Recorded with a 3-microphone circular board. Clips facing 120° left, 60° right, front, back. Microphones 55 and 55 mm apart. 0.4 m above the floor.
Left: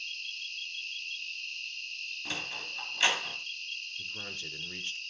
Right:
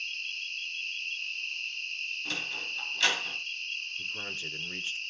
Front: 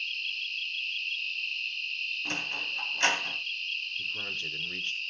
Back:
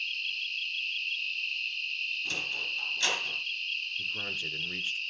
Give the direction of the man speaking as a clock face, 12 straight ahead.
4 o'clock.